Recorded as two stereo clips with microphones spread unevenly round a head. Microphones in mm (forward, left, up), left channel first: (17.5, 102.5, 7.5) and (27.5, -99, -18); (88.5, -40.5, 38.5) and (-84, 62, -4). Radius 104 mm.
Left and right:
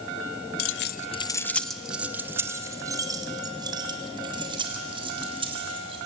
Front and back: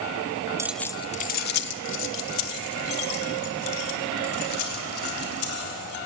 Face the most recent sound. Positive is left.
turn(degrees=-20)